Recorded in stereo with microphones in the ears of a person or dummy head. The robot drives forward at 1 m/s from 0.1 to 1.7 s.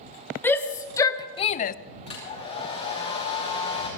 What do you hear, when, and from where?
0.4 s a shout: 15° left (ahead or behind), 1.6 m; by 1.8 s 50° left (ahead or behind), 0.5 m
2.1 s a hair dryer: 30° left (ahead or behind), 5 m